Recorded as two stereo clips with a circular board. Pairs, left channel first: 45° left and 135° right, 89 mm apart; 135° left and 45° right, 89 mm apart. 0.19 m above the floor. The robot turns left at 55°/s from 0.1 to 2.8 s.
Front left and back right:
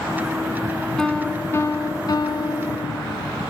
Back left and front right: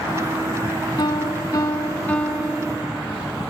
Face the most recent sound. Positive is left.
turn(degrees=25)